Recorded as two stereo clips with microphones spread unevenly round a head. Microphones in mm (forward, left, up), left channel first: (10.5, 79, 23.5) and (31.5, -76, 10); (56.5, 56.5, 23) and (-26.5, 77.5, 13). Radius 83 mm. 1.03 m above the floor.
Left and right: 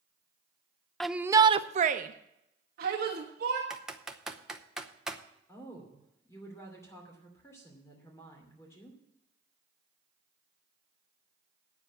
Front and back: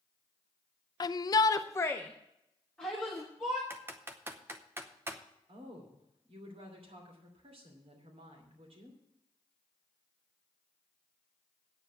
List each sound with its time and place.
1.0 s a shout: 5° left, 0.5 m; by 3.6 s 110° right, 1.6 m
3.7 s typing on a keyboard: 160° right, 0.7 m
5.5 s a woman speaking: 175° left, 2.5 m